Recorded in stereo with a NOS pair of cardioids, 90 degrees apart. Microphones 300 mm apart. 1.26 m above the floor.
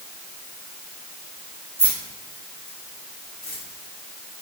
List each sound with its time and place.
1.8 s keys jangling: 10° right, 1.4 m; by 3.6 s 35° left, 2 m